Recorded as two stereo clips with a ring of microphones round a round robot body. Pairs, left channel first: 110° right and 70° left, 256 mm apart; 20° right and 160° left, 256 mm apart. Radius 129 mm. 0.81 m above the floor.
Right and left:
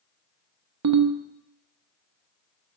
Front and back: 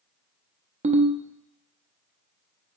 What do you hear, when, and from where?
0.8 s a ringtone: 95° left, 0.7 m